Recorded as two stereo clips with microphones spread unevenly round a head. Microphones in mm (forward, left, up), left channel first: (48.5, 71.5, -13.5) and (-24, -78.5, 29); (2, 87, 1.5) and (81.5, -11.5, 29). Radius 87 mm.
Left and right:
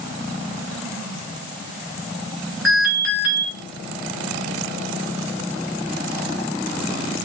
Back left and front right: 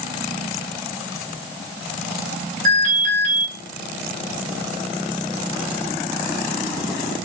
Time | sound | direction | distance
2.6 | an alarm | 25° right | 4.5 m